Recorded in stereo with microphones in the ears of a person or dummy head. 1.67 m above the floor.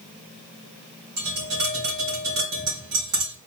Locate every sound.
1.2 s tapping: 65° right (ahead or behind), 3.5 m